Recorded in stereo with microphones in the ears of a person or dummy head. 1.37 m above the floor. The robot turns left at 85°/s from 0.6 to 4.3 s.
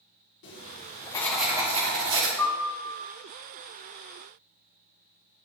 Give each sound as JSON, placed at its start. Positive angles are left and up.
{"t": 0.4, "sound": "writing", "azimuth_deg": 70, "distance_m": 1.8}
{"t": 2.4, "sound": "a piano", "azimuth_deg": 175, "distance_m": 3.0}